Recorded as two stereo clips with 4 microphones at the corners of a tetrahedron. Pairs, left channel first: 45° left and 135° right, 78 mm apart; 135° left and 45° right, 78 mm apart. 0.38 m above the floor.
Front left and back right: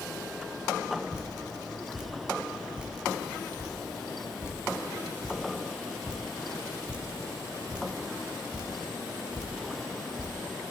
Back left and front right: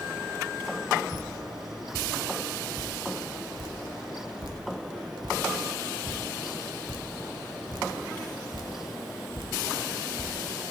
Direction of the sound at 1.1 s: 60° right.